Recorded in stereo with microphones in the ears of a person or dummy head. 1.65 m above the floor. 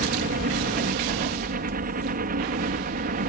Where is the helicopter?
45° right (ahead or behind); by 3.3 s 40° right (ahead or behind).